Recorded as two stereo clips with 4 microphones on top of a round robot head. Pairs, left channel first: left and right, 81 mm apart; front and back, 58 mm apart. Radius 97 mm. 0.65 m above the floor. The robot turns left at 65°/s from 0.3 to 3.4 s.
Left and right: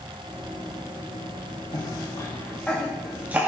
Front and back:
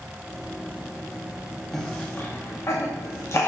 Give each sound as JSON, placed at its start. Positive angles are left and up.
{"t": 1.7, "sound": "a cough", "azimuth_deg": 80, "distance_m": 1.0}